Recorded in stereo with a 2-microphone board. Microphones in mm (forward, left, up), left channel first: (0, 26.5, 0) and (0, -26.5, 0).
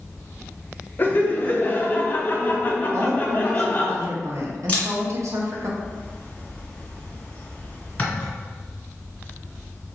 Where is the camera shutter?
30° left (ahead or behind), 1.6 m.